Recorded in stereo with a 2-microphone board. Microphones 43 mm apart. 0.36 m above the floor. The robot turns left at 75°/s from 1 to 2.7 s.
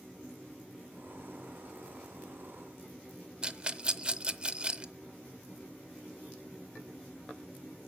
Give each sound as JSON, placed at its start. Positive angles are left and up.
{"t": 3.4, "sound": "a rattle", "side_deg": -20, "distance_m": 0.6}